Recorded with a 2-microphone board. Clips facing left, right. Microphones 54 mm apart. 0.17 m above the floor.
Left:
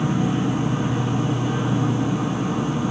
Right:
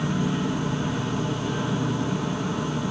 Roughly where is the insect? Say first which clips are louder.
Left 4 dB; centre.